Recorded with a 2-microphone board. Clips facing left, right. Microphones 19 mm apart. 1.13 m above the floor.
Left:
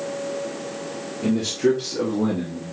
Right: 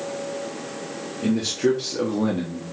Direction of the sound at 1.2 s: Centre (ahead or behind).